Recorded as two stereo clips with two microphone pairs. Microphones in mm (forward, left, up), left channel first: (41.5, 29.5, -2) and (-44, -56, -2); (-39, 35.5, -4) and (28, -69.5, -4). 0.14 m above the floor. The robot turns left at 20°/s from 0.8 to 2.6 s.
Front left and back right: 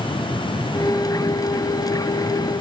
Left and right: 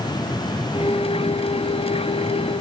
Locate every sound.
Only background noise.